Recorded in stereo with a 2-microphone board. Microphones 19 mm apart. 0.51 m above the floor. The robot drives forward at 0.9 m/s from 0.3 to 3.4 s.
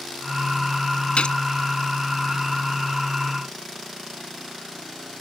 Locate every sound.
1.2 s a gunshot: 75° left (ahead or behind)